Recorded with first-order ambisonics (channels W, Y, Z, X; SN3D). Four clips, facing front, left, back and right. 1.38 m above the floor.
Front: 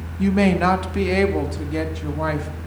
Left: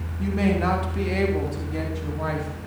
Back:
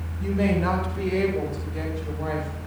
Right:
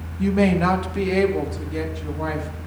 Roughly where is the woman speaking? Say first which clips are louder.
Right 4 dB, front 6 dB; ahead.